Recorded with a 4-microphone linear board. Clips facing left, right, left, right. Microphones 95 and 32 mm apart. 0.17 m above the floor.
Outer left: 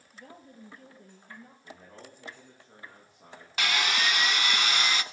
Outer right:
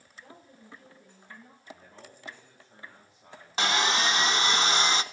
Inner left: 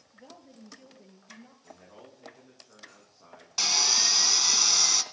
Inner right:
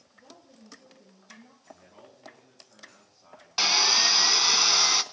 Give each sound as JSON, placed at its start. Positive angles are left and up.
{"t": 0.1, "sound": "a woman speaking", "side_deg": 55, "distance_m": 4.0}
{"t": 1.6, "sound": "a man speaking", "side_deg": 65, "distance_m": 10.0}
{"t": 3.6, "sound": "sawing", "side_deg": -25, "distance_m": 0.6}